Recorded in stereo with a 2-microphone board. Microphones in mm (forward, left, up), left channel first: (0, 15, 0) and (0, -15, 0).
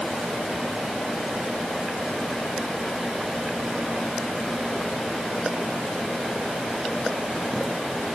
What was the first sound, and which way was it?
Only background noise.